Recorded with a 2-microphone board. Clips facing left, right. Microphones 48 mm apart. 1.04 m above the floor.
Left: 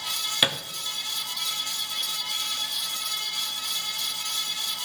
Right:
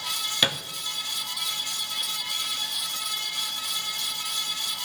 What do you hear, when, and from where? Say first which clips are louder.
0.4 s a thud: even; 10° left (ahead or behind), 0.7 m